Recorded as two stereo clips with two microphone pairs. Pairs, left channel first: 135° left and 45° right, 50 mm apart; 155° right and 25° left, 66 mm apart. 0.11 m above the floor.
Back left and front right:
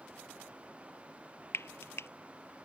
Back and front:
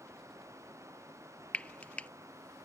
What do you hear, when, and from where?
1.5 s frying: 135° left